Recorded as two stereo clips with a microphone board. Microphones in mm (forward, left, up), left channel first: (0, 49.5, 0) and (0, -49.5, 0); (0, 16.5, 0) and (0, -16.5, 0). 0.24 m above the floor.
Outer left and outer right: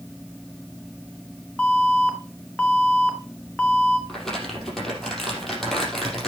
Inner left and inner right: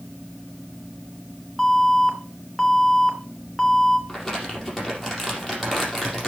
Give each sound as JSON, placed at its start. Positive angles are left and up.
{"t": 1.6, "sound": "an alarm", "side_deg": 15, "distance_m": 3.0}
{"t": 4.1, "sound": "crumpling", "side_deg": 5, "distance_m": 5.0}